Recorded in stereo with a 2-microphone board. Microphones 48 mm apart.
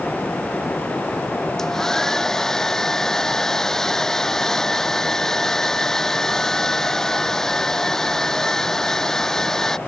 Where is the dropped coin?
No dropped coin in this recording.